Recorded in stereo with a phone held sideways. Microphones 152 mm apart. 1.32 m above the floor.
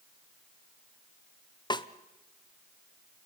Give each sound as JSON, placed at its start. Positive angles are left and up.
{"t": 1.7, "sound": "a snare drum", "side_deg": 30, "distance_m": 0.8}